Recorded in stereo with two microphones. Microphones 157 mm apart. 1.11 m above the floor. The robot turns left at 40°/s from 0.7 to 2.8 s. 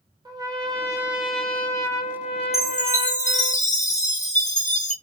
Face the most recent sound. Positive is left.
turn(degrees=50)  # may be behind; listen again after turning